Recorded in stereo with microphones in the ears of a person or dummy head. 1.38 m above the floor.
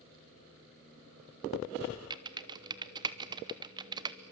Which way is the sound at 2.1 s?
25° right (ahead or behind).